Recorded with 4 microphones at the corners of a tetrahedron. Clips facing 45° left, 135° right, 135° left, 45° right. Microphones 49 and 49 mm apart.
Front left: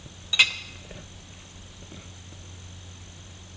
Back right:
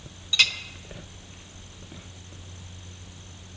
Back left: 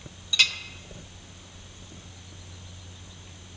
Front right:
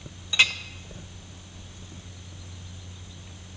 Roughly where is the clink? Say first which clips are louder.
Front left 2 dB, front right 3 dB; ahead.